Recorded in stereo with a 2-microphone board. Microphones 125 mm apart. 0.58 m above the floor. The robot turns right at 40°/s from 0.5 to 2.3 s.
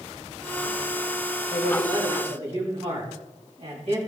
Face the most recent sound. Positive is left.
turn(degrees=-125)